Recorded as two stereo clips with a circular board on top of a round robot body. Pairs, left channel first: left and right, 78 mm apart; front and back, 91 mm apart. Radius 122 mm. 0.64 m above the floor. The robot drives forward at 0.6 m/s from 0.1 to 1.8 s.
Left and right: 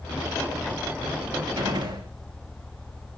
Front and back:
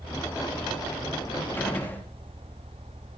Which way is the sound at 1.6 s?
70° right.